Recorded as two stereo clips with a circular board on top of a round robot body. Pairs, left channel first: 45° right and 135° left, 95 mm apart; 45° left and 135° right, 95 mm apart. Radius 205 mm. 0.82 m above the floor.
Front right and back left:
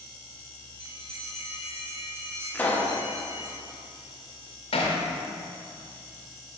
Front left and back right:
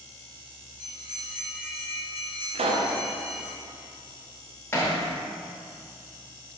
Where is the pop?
120° right, 0.7 m.